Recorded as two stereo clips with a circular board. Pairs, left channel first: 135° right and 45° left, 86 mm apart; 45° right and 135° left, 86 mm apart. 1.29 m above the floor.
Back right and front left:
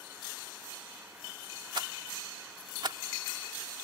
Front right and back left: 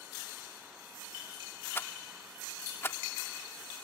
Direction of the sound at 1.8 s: 15° left.